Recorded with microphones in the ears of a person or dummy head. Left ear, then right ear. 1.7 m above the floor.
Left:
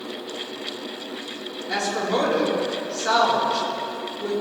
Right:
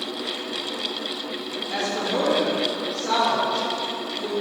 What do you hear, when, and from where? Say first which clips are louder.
1.7 s a woman speaking: left 2 dB; 45° left (ahead or behind), 4 m